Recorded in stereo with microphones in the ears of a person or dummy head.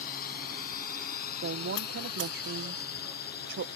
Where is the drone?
55° left (ahead or behind); by 3.8 s 60° left (ahead or behind).